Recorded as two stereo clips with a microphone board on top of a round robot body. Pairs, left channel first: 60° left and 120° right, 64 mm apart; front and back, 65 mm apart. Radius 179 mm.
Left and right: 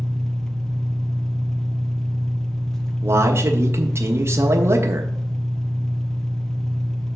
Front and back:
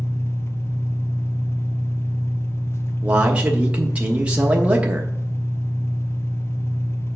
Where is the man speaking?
120° right, 1.3 m.